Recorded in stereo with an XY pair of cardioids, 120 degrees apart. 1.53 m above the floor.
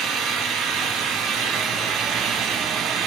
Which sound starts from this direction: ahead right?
An engine running, at 0.0 s.